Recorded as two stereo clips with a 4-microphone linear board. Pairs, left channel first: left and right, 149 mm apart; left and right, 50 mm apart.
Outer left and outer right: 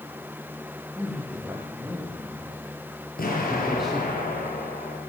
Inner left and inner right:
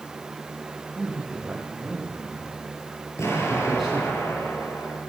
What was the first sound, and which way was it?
A man speaking, 5° right (ahead or behind).